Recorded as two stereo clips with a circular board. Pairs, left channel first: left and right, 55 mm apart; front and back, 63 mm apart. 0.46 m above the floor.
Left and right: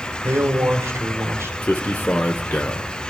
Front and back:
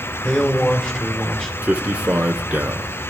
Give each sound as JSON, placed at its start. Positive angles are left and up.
{"t": 0.2, "sound": "a man speaking", "azimuth_deg": -70, "distance_m": 2.5}
{"t": 1.6, "sound": "a man speaking", "azimuth_deg": 125, "distance_m": 0.9}